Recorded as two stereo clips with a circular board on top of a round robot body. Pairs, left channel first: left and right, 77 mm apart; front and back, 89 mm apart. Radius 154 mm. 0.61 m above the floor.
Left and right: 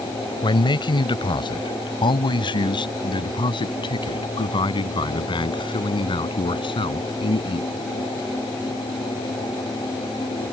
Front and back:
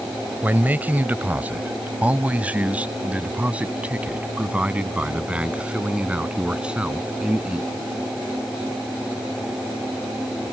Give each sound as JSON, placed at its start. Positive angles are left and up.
{"t": 0.4, "sound": "a man speaking", "azimuth_deg": 110}